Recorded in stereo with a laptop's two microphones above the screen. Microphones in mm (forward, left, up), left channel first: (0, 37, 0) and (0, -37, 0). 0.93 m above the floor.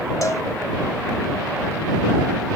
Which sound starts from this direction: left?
A cowbell, at 0.2 s.